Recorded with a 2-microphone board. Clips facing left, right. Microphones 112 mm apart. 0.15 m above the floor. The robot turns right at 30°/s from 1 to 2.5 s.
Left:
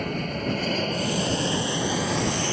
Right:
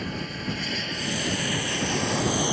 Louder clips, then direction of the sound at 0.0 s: Left 4 dB; 55° left (ahead or behind).